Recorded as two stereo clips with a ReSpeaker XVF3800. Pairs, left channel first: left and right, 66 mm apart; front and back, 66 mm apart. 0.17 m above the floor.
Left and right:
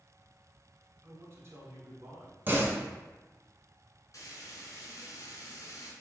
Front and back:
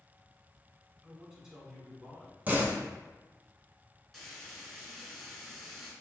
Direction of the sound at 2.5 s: 130° right.